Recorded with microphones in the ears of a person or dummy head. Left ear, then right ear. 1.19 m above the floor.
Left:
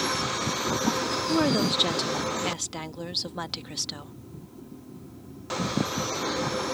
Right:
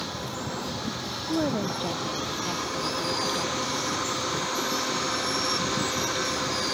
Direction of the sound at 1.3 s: 75° left (ahead or behind).